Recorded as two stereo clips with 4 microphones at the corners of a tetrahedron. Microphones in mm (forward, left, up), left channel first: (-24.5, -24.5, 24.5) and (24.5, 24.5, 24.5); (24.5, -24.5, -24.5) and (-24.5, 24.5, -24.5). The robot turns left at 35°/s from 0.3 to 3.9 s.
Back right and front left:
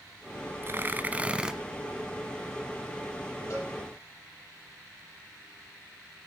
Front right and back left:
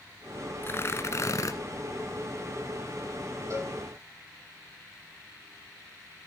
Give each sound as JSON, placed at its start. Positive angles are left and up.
{"t": 0.6, "sound": "tearing paper", "azimuth_deg": 0, "distance_m": 1.2}
{"t": 3.5, "sound": "a cowbell", "azimuth_deg": 175, "distance_m": 7.0}